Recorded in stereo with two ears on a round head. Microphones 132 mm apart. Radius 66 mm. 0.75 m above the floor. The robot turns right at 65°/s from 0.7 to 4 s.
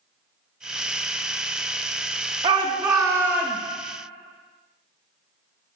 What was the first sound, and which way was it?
A shout, 80° right.